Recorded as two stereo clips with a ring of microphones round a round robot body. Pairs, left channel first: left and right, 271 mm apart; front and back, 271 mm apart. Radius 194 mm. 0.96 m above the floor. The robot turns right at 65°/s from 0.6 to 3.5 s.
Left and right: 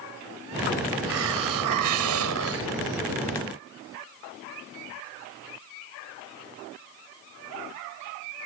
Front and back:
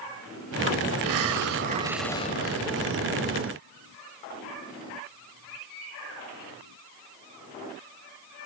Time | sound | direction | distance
1.0 | a hiss | 155° right | ?